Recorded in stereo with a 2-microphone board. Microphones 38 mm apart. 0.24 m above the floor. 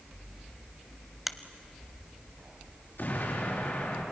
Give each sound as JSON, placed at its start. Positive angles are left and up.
{"t": 1.3, "sound": "a finger snap", "side_deg": -5, "distance_m": 0.8}
{"t": 3.0, "sound": "an explosion", "side_deg": 60, "distance_m": 4.0}